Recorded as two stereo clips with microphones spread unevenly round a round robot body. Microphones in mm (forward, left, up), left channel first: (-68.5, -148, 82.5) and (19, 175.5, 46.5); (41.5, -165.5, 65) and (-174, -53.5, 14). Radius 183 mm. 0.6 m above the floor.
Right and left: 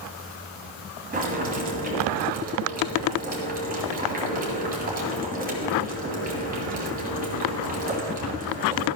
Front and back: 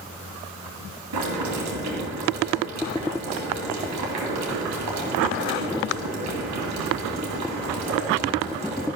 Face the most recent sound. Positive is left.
turn(degrees=140)